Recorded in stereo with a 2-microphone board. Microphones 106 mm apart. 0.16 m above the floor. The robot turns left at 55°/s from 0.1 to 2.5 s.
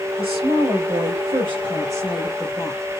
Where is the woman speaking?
55° right, 3 m; by 2.9 s straight behind, 3 m.